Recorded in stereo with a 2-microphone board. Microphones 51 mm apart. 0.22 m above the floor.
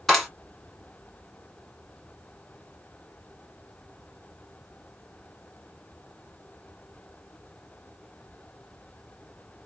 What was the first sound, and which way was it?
A clap, 5° left (ahead or behind).